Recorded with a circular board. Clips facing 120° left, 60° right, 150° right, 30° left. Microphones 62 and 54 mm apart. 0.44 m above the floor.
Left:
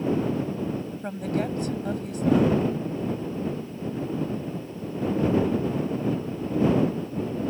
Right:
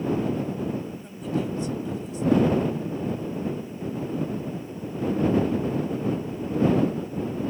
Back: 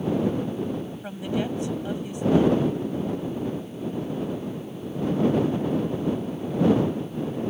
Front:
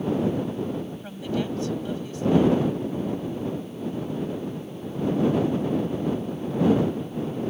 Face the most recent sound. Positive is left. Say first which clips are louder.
# left 2 dB, back 1 dB
turn(degrees=140)